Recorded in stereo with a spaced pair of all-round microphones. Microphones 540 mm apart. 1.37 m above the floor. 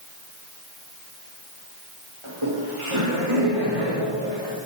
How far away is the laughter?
About 5 m.